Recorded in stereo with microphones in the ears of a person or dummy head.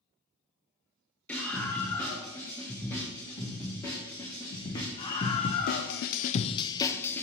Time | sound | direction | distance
1.3 | a scream | 10° left (ahead or behind) | 4.5 m